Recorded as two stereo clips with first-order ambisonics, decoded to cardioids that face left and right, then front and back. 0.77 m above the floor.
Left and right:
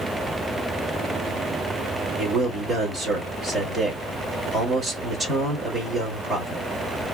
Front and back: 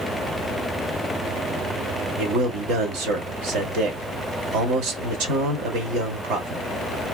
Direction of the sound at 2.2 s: 170° right.